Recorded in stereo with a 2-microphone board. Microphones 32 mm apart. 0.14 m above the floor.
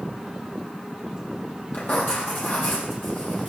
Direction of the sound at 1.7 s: 55° left (ahead or behind).